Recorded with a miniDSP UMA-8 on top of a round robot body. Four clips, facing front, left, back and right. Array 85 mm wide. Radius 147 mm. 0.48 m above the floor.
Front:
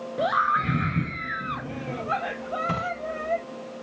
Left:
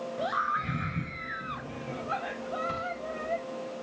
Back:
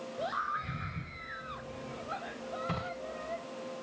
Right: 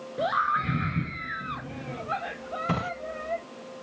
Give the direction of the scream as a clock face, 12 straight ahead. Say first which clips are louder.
Right 5 dB, front 13 dB; 1 o'clock.